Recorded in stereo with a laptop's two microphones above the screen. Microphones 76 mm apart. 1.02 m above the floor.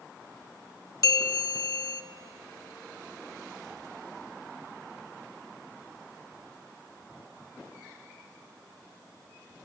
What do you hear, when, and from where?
1.0 s a bell: 45° left (ahead or behind), 0.7 m